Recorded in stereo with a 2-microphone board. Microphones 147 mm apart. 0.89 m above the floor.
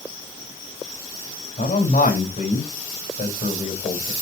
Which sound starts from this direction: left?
A man speaking, at 1.6 s.